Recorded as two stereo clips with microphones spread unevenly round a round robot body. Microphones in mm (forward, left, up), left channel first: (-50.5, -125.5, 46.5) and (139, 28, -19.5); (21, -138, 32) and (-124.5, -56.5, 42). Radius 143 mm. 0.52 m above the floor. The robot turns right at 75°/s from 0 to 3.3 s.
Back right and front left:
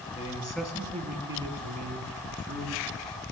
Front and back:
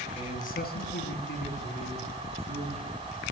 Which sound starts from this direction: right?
A man speaking, at 0.1 s.